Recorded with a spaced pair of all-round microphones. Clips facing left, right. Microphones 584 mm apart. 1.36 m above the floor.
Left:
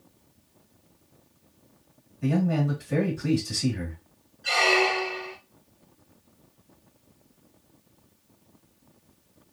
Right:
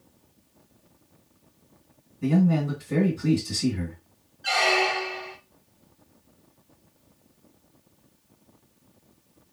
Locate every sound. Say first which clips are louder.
2.2 s a man speaking: right 3 dB; 10° right (ahead or behind), 2 m
4.4 s a squeak: left 2 dB; 15° right (ahead or behind), 0.6 m